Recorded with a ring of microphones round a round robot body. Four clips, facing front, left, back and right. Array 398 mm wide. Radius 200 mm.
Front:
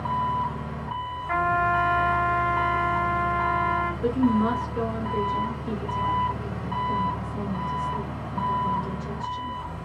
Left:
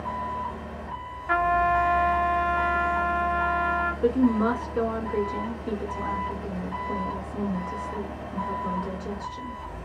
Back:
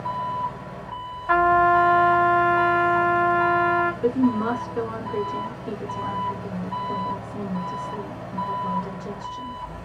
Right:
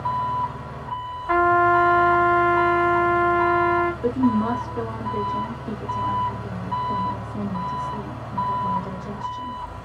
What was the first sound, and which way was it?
An engine running, 55° right.